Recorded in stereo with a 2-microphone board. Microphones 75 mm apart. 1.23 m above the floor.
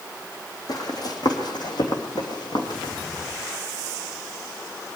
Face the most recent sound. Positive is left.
turn(degrees=65)  # may be behind; listen again after turning